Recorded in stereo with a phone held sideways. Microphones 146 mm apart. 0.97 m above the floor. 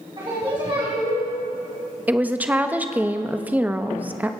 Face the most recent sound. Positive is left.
turn(degrees=-10)  # may be behind; listen again after turning